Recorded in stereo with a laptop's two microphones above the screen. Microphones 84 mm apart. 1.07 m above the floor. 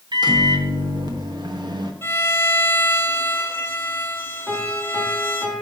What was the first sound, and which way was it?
A microwave, 60° right (ahead or behind).